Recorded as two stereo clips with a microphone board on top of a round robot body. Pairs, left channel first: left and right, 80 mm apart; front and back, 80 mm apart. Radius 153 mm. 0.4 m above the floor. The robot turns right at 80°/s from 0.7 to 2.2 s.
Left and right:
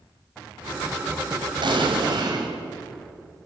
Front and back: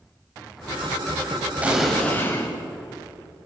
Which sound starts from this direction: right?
An explosion, at 1.6 s.